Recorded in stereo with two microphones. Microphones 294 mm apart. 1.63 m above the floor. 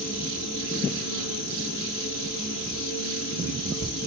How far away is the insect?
About 3 m.